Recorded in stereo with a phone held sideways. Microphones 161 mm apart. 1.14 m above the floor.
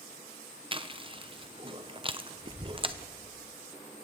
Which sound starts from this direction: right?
Chewing, at 0.7 s.